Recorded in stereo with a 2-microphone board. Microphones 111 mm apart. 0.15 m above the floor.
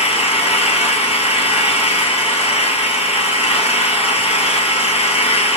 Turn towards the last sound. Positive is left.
turn(degrees=70)  # may be behind; listen again after turning